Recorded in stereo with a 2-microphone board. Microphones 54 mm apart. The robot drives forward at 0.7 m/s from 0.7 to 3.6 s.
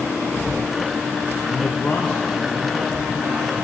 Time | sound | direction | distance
1.5 | a man speaking | 35° left (ahead or behind) | 0.6 m